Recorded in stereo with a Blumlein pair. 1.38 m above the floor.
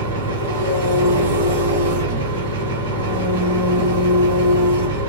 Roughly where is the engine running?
Ahead right.